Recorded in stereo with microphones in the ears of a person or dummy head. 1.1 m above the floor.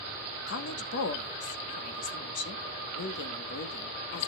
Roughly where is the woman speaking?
Left.